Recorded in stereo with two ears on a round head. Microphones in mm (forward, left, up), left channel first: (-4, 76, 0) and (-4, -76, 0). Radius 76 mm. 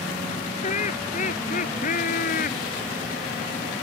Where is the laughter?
45° left (ahead or behind); by 2.6 s 55° left (ahead or behind).